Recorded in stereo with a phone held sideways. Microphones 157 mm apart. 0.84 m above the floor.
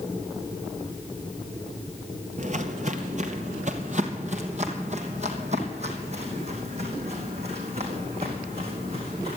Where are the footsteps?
50° right (ahead or behind), 1.2 m; by 9.4 s 40° right (ahead or behind), 4.5 m.